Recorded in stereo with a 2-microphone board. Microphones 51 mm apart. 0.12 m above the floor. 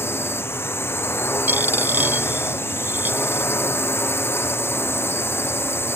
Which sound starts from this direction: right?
A dropped coin, at 1.5 s.